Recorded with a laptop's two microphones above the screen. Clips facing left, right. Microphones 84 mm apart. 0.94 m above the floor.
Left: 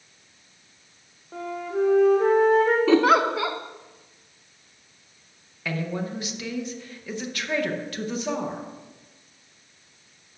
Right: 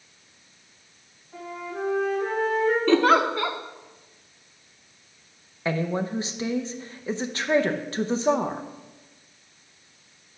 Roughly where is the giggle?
Centre.